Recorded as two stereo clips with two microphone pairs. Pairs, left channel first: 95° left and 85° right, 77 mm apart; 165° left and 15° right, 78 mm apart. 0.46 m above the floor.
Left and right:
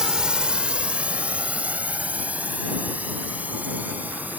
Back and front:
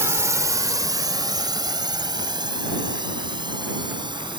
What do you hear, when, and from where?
0.0 s a drone: 10° right; by 4.4 s 15° right